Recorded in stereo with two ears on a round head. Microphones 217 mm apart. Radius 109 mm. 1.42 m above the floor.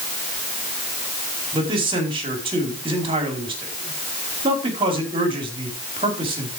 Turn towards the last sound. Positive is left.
turn(degrees=-25)  # may be behind; listen again after turning